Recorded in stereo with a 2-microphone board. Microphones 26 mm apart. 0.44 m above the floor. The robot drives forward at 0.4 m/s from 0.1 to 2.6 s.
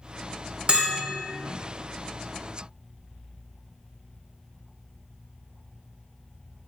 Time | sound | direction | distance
0.7 | a bell | 40° right (ahead or behind) | 0.6 m